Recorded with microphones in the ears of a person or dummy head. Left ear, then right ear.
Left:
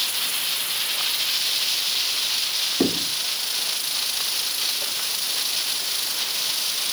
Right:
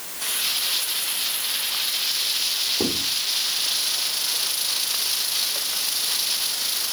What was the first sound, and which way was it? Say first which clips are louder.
Writing: left 1 dB; 30° left (ahead or behind).